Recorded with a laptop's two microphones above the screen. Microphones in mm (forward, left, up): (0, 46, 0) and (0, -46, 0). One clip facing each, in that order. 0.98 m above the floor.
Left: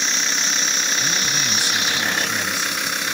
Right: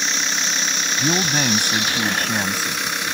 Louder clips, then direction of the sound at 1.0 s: Right 5 dB; 60° right (ahead or behind).